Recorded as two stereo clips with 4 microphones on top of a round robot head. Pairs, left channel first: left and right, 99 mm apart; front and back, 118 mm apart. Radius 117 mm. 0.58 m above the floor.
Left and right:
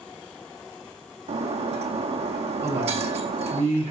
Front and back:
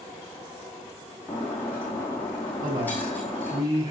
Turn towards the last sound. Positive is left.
turn(degrees=-120)